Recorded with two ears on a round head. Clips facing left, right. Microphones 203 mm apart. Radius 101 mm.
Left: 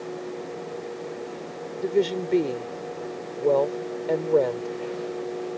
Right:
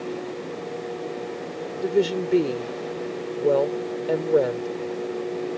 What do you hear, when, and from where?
1.8 s a woman speaking: 10° right (ahead or behind)